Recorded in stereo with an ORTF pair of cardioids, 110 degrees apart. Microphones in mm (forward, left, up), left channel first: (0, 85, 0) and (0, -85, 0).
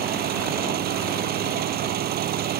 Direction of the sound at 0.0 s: 70° right.